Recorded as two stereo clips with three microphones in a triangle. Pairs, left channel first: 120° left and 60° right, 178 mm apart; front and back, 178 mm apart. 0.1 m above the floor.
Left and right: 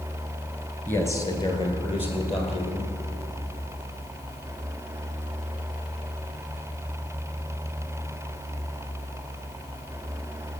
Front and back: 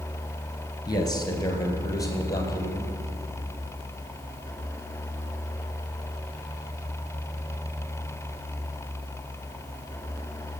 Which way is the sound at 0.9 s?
50° left.